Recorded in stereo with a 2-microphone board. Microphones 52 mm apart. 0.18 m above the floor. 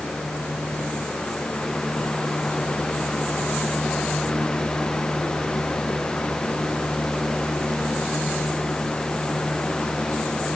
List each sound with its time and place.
Only background noise.